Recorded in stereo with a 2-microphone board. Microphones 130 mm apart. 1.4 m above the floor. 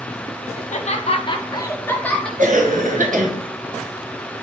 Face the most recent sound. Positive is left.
turn(degrees=-75)  # may be behind; listen again after turning